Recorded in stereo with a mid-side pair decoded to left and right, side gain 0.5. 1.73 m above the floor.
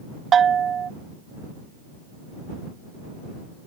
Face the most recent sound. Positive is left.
turn(degrees=-45)